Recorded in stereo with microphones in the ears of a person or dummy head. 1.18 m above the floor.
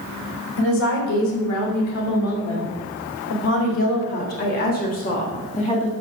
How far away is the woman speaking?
About 3.5 m.